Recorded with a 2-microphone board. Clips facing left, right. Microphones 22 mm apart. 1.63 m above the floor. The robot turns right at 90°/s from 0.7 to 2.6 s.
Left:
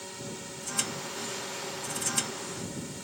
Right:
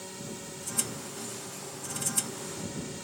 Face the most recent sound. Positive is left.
turn(degrees=-175)